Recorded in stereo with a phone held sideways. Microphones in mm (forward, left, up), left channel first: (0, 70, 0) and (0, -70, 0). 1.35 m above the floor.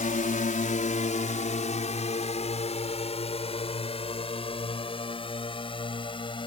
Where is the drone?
70° left (ahead or behind); by 6.5 s 35° left (ahead or behind).